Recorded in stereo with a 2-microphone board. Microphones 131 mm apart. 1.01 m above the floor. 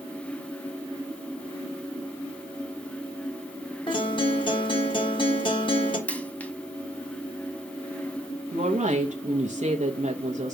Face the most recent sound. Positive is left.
turn(degrees=-65)  # may be behind; listen again after turning